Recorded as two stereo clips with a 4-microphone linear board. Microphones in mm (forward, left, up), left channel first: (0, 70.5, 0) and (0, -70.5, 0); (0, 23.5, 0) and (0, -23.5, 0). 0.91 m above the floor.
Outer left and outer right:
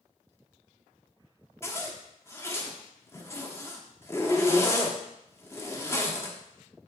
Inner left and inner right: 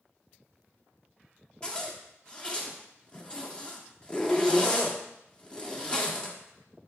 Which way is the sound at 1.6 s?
20° left (ahead or behind).